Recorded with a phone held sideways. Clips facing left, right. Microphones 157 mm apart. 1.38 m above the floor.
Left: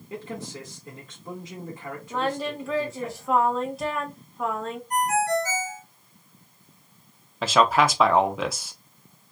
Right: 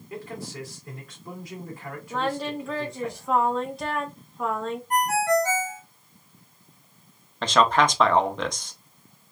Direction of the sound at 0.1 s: 20° left (ahead or behind).